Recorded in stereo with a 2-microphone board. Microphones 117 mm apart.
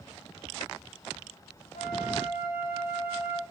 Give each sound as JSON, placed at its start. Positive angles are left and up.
{"t": 1.7, "sound": "a flute", "side_deg": 75, "distance_m": 0.7}